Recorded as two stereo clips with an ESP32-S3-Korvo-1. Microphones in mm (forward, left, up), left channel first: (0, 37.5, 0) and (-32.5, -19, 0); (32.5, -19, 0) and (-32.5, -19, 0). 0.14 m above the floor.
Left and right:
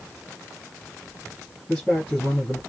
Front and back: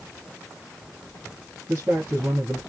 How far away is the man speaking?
About 2.5 m.